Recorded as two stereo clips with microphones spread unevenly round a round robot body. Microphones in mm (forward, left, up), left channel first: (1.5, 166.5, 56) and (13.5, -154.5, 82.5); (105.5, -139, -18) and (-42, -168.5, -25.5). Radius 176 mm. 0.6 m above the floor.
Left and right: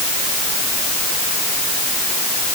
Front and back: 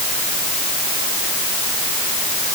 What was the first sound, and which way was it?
Only background noise.